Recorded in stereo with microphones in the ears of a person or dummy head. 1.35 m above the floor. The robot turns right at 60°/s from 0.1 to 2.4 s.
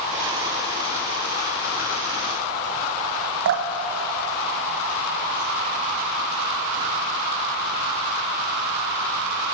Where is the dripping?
65° right (ahead or behind), 0.9 m.